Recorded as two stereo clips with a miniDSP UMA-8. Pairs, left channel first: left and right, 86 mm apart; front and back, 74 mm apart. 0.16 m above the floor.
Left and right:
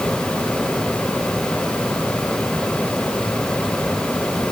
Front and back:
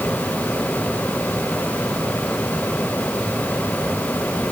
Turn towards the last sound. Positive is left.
No sound to turn to.